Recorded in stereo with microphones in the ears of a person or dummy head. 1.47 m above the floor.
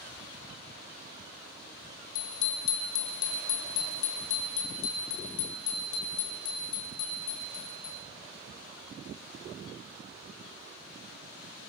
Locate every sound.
2.1 s a bicycle bell: 80° left, 2.5 m